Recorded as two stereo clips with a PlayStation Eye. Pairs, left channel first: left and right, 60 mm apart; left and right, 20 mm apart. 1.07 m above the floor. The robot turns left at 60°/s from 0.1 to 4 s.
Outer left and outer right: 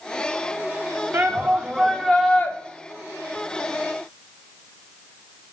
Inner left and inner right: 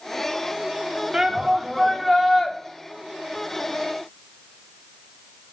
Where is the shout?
130° right, 0.7 m; by 2.5 s 145° left, 0.7 m.